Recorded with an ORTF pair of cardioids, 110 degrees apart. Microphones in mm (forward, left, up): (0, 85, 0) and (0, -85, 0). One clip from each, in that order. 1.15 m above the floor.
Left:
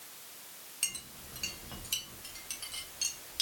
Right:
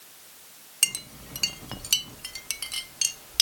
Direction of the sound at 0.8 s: 50° right.